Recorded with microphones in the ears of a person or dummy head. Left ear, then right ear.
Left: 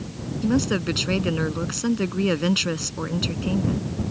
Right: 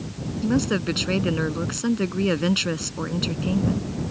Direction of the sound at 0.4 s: 5° left (ahead or behind).